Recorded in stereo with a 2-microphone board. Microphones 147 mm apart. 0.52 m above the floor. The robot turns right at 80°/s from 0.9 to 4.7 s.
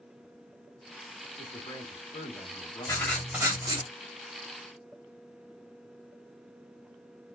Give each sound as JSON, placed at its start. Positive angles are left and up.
{"t": 1.4, "sound": "a man speaking", "azimuth_deg": 25, "distance_m": 1.4}
{"t": 2.9, "sound": "writing", "azimuth_deg": 155, "distance_m": 1.4}